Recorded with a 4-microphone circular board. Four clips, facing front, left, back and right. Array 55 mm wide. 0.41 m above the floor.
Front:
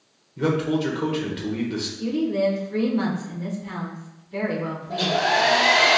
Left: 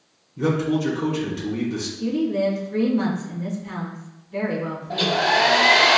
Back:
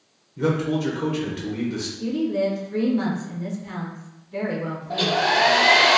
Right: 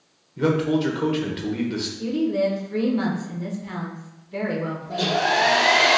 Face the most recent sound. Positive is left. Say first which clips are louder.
# left 2 dB, back 1 dB
turn(degrees=125)